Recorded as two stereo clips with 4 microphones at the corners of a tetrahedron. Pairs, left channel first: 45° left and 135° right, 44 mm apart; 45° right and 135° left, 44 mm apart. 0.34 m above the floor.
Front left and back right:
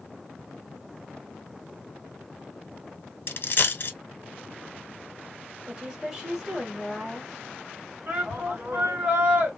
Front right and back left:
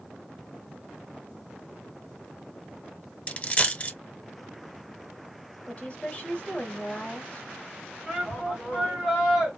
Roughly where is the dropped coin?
Ahead.